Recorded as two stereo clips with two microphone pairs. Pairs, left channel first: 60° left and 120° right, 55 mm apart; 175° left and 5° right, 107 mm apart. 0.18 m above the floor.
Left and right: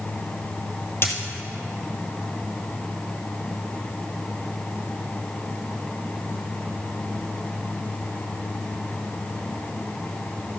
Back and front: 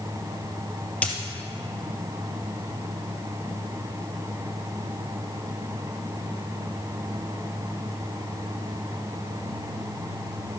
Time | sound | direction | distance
1.0 | a dropped coin | 100° left | 1.7 m